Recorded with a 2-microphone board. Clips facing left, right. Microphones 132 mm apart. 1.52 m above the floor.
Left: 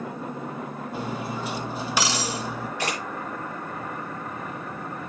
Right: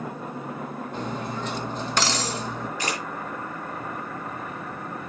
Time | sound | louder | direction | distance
0.9 | cutlery clinking | left 1 dB | 10° left (ahead or behind) | 1.1 m
2.8 | a camera shutter | left 2 dB | 65° left (ahead or behind) | 7 m